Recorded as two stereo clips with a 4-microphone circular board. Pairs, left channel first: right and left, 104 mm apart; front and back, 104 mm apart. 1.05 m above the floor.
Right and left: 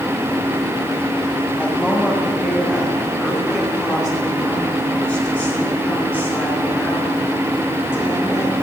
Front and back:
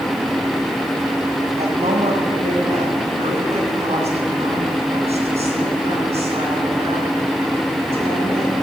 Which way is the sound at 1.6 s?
170° right.